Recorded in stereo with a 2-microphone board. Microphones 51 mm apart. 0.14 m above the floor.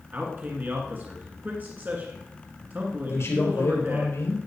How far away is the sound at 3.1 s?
About 3.5 m.